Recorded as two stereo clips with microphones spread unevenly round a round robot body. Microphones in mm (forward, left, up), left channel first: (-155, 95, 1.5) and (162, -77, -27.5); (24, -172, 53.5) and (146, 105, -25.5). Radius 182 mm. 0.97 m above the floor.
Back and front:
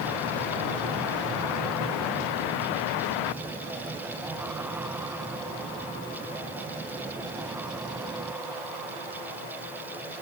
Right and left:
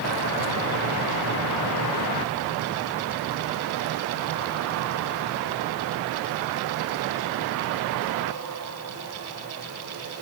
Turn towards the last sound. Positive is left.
No sound to turn to.